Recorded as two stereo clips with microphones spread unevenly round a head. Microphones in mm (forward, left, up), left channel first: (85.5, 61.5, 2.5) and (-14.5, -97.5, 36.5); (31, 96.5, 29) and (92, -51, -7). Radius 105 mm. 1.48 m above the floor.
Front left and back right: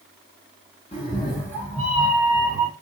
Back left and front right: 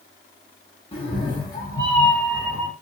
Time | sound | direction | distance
0.9 | a cat meowing | 125° left | 1.2 m